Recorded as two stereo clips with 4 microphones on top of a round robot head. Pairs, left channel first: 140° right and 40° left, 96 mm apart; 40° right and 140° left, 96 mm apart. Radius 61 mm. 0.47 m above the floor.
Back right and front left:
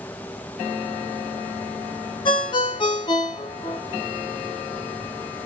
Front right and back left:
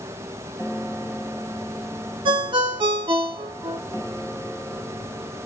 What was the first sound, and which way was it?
A ringtone, straight behind.